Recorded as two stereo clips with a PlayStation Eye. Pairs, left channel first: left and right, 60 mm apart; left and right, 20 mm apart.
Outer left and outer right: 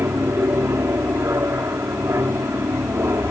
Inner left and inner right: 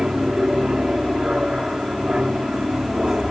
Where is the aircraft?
50° right (ahead or behind).